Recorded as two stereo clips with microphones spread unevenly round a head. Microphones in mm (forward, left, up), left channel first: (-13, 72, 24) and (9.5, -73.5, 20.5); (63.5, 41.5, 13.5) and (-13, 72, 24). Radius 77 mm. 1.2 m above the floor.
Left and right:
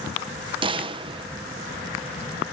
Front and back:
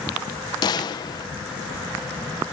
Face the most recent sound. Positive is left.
turn(degrees=-30)